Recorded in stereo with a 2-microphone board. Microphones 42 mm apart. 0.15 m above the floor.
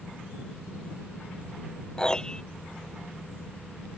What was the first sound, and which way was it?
A piano, 20° left (ahead or behind).